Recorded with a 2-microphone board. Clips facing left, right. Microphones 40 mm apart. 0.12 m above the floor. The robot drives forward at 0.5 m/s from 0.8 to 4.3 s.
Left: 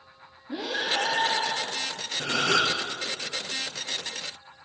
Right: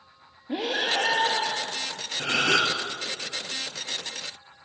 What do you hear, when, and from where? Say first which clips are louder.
0.5 s breathing: right 2 dB; 60° right (ahead or behind), 1.5 m; by 2.0 s 55° right (ahead or behind), 1.6 m
2.2 s a gasp: right 1 dB; 60° right (ahead or behind), 1.4 m; by 2.8 s 55° right (ahead or behind), 1.4 m